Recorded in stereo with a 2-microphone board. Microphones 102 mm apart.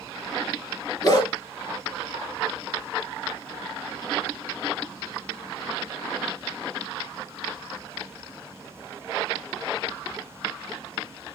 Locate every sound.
1.0 s a dog barking: 40° left (ahead or behind), 2.5 m